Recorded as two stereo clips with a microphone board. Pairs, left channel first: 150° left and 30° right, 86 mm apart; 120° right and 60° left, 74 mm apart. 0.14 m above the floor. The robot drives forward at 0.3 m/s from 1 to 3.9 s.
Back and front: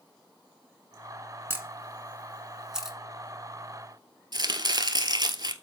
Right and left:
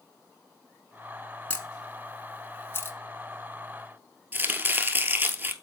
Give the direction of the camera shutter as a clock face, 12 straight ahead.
2 o'clock.